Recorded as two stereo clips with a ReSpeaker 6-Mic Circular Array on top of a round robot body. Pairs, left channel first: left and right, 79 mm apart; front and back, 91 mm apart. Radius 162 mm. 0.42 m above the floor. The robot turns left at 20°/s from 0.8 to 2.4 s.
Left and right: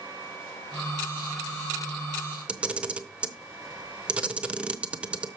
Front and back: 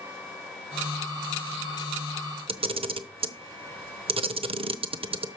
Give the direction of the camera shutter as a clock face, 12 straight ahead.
6 o'clock.